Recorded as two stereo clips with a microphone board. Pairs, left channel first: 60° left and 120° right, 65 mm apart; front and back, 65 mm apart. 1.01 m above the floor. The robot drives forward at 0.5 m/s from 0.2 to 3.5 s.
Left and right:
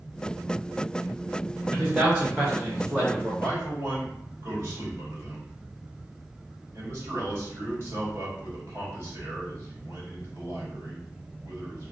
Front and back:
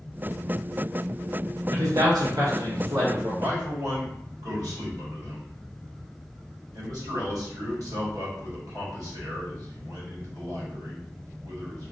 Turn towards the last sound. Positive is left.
turn(degrees=-170)